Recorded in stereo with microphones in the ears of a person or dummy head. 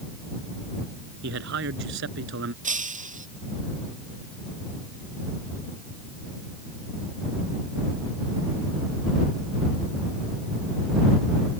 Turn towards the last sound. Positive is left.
turn(degrees=-40)  # may be behind; listen again after turning